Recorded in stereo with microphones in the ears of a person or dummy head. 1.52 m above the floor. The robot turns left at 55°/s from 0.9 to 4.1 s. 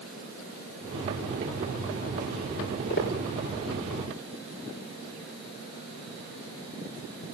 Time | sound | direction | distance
2.6 | footsteps | 80° left | 7 m